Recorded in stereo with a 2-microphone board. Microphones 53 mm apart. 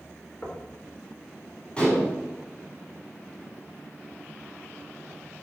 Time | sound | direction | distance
0.4 | knocking | 30° left (ahead or behind) | 3 m
1.8 | dishes clattering | 20° left (ahead or behind) | 5.5 m